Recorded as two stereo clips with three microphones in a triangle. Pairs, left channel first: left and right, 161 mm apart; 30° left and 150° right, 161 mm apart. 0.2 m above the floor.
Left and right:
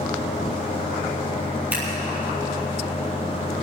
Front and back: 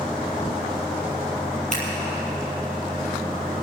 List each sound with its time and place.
1.7 s scissors: 10° right, 4.5 m